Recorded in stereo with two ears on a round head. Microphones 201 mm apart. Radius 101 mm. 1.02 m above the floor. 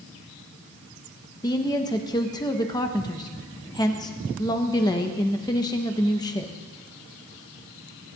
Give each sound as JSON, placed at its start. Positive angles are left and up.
{"t": 1.4, "sound": "a woman speaking", "side_deg": 15, "distance_m": 1.0}